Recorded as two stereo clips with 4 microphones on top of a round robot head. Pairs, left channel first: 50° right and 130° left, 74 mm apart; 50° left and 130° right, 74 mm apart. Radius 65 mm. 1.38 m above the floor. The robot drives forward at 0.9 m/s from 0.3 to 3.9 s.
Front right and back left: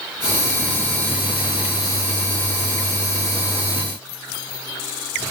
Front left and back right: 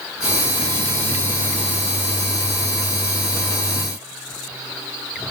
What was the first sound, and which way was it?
Only background noise.